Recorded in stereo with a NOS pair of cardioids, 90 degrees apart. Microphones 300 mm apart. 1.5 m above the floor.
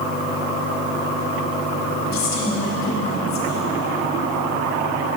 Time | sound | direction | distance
2.1 | a woman speaking | 60° left | 4 m